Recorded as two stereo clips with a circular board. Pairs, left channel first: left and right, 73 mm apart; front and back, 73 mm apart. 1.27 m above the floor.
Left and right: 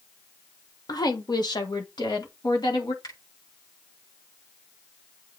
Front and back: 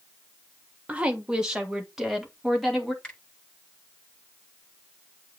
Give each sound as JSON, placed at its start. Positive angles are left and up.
{"t": 0.9, "sound": "a woman speaking", "azimuth_deg": 110, "distance_m": 1.3}
{"t": 3.0, "sound": "a finger snap", "azimuth_deg": 70, "distance_m": 6.0}